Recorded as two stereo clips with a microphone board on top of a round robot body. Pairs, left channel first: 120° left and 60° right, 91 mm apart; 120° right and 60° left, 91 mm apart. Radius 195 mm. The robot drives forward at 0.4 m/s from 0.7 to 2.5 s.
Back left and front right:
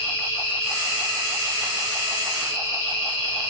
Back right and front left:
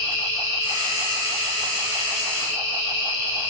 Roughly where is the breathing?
I don't hear breathing.